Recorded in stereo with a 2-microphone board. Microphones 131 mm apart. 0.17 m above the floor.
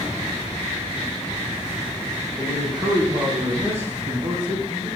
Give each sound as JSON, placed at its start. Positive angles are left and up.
{"t": 2.4, "sound": "a man speaking", "side_deg": -20, "distance_m": 1.3}